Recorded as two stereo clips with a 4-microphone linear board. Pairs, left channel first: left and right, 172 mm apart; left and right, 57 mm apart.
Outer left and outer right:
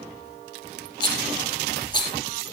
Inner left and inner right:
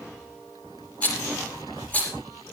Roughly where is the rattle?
Left.